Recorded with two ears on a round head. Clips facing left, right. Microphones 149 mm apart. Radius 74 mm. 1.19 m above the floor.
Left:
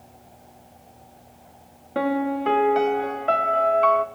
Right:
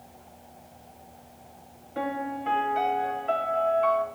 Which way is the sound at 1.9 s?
70° left (ahead or behind).